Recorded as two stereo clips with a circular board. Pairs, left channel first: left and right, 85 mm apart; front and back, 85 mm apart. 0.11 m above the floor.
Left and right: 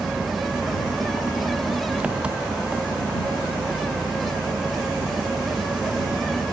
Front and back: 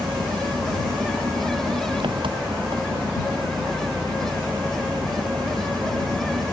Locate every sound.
0.0 s an engine running: 165° right